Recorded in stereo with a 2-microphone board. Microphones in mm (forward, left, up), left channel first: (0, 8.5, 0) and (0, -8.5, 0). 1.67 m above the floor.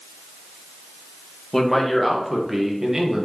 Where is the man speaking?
15° left (ahead or behind), 1.9 m; by 3.3 s 45° right (ahead or behind), 1.4 m.